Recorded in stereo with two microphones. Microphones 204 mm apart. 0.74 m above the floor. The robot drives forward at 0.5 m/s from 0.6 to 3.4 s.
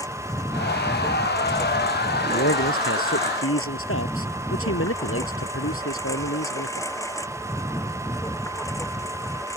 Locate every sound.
0.0 s a lawn mower: 15° left (ahead or behind)
2.3 s a man speaking: 80° left